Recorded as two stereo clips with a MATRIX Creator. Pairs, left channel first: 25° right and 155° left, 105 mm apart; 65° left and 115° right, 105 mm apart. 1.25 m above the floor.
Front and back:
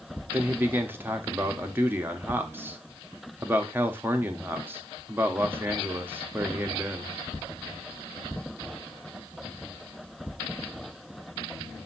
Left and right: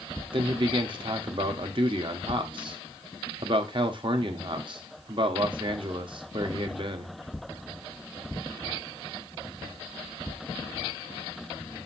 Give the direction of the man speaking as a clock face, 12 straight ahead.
5 o'clock.